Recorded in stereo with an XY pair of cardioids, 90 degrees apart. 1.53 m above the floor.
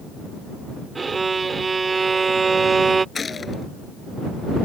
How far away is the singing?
I don't hear singing.